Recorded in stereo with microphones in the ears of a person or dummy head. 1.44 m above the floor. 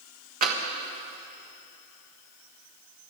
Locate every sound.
0.4 s tapping: 40° right (ahead or behind), 1.4 m